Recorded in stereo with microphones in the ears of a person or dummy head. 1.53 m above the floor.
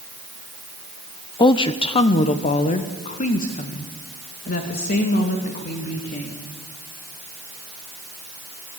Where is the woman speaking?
25° left (ahead or behind), 0.9 m; by 6.5 s 55° left (ahead or behind), 3.5 m.